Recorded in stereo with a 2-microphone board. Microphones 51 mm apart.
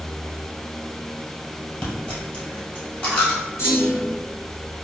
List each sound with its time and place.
1.8 s a dropped coin: 25° left (ahead or behind), 1.4 m
3.6 s a clunk: 65° left (ahead or behind), 1.9 m